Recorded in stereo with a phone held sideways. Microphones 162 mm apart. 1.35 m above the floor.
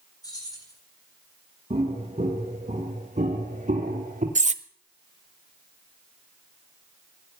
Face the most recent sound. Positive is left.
turn(degrees=-45)  # may be behind; listen again after turning